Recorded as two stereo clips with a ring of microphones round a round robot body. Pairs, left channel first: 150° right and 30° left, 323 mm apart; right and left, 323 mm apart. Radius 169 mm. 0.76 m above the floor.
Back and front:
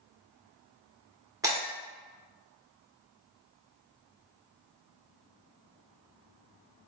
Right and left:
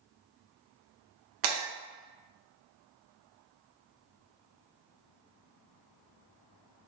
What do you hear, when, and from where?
1.4 s breaking glass: 110° left, 1.3 m